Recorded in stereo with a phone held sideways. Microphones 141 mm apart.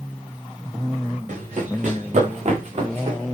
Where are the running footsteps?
60° right (ahead or behind), 7.5 m; by 3.2 s 50° right (ahead or behind), 8 m.